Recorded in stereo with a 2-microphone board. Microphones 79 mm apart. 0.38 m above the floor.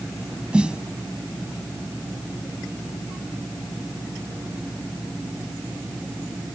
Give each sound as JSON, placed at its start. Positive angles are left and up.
{"t": 0.5, "sound": "a snare drum", "side_deg": -10}